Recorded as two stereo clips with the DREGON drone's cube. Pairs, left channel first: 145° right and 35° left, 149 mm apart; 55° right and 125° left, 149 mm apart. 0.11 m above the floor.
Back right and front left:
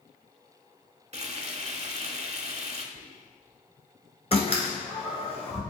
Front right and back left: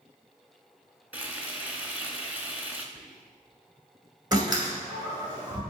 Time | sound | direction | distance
1.1 | frying | 50° left | 0.6 m
3.0 | whispering | 40° left | 1.1 m
4.3 | a door slam | straight behind | 1.4 m